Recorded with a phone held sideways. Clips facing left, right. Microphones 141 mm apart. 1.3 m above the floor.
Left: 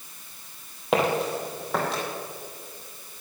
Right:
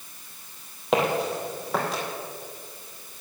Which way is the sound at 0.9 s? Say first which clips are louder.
Even; centre (ahead or behind).